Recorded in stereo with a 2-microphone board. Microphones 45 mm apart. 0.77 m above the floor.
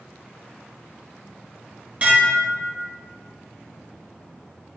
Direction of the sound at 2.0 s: 30° right (ahead or behind).